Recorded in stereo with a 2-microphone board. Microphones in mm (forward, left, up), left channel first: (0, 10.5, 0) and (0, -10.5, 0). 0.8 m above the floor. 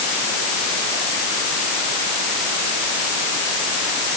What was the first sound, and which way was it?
Only background noise.